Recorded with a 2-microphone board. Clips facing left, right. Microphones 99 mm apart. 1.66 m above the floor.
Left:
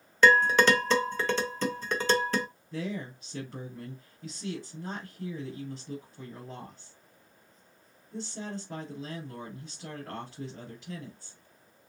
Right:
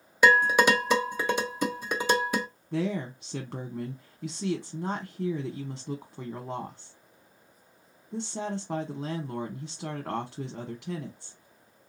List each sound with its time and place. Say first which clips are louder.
0.2 s dishes clattering: right 1 dB; 10° right (ahead or behind), 0.8 m
2.7 s a woman speaking: right 6 dB; 65° right (ahead or behind), 1.0 m